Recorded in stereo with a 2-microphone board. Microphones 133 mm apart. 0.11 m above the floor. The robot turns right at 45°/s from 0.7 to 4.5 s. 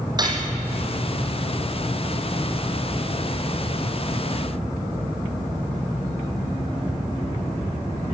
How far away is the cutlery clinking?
About 2.5 m.